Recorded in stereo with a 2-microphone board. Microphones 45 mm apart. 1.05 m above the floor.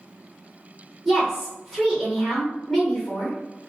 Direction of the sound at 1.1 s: 10° right (ahead or behind).